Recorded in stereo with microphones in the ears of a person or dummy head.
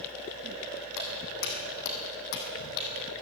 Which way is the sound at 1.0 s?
60° left (ahead or behind).